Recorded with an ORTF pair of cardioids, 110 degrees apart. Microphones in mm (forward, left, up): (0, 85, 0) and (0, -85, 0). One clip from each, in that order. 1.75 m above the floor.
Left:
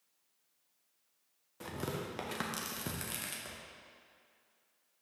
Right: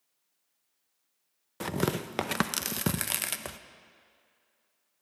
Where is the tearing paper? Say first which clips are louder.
Right 9 dB; 55° right, 0.5 m.